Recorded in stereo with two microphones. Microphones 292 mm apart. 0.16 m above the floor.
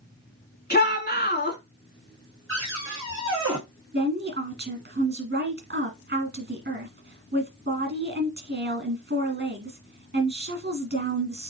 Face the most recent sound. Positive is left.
turn(degrees=-40)  # may be behind; listen again after turning